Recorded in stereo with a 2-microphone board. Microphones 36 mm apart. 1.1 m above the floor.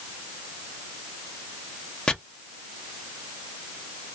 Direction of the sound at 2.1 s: 20° left (ahead or behind).